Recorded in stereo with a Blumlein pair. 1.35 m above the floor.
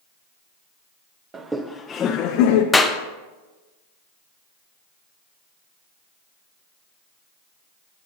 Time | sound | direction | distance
1.3 | laughter | 20° right | 0.5 m
2.7 | a clap | 10° left | 0.6 m